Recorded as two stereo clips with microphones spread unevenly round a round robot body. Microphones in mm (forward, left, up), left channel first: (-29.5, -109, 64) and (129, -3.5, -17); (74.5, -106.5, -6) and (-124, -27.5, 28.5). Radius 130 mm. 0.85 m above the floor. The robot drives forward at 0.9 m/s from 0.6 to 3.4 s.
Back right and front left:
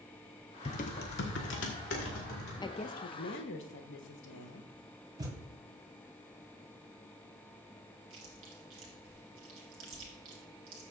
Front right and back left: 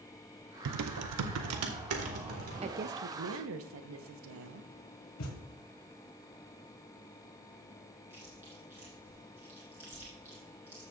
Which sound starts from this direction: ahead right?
A thud, at 5.2 s.